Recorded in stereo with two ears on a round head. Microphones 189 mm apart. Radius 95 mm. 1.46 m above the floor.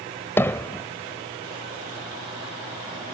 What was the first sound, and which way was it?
Hammering, 10° left (ahead or behind).